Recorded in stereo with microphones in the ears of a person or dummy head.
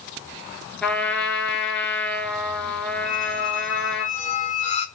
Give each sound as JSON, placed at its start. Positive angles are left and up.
{"t": 0.8, "sound": "a trumpet", "side_deg": 10, "distance_m": 3.0}
{"t": 3.0, "sound": "a squeak", "side_deg": 35, "distance_m": 1.0}